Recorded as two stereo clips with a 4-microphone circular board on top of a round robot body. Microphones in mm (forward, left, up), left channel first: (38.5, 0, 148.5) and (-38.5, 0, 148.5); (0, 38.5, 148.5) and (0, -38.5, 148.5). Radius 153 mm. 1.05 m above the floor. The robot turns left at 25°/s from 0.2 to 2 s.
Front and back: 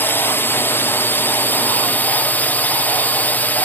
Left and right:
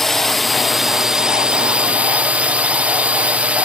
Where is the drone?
10° left; by 3.7 s 35° right.